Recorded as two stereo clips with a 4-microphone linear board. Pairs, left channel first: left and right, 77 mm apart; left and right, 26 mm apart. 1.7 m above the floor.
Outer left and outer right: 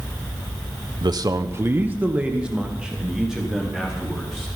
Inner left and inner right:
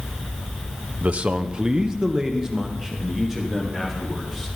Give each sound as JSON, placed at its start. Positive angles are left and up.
{"t": 1.0, "sound": "a man speaking", "side_deg": -65, "distance_m": 0.8}